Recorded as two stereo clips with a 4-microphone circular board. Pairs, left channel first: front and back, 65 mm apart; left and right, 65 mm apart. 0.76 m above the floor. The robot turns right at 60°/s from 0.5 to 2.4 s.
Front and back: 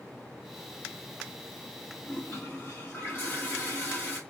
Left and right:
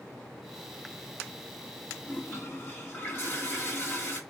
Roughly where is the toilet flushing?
Ahead left.